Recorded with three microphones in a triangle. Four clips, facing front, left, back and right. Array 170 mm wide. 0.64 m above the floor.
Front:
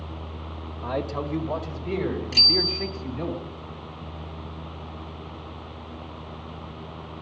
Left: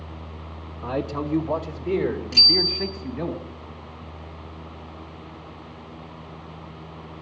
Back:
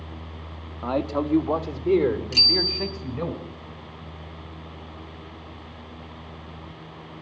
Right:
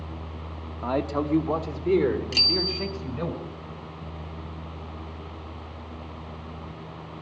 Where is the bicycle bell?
70° right, 2.5 m.